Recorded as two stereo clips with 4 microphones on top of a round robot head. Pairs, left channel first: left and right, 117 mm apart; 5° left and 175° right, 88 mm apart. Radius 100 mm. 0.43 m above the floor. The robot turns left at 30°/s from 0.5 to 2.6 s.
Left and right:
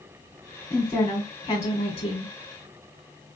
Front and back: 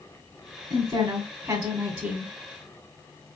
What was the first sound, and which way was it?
A woman speaking, 170° left.